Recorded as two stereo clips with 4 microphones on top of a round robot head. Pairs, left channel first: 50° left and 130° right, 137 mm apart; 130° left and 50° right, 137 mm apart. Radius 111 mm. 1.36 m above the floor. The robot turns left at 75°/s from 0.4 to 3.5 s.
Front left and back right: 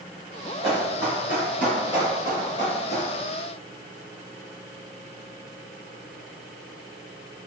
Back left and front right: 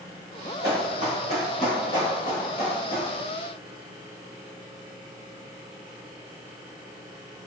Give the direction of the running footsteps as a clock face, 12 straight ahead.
2 o'clock.